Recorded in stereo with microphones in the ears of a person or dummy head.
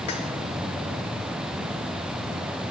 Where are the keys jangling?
25° left (ahead or behind), 0.6 m.